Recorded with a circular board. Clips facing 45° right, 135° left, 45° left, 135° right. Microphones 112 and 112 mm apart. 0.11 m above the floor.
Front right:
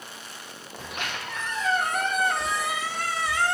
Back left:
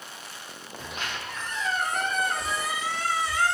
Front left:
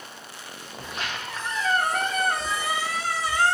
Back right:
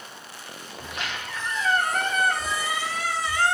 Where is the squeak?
10° right, 1.8 m.